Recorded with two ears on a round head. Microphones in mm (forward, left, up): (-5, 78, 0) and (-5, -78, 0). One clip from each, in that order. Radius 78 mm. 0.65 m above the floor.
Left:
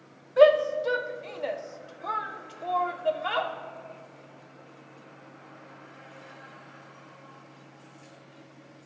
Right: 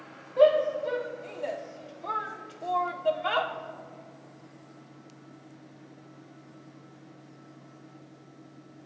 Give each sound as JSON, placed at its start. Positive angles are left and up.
{"t": 0.4, "sound": "a shout", "side_deg": 45, "distance_m": 1.5}